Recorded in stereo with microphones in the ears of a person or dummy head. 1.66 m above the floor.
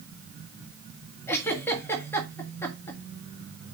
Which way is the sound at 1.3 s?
20° left (ahead or behind).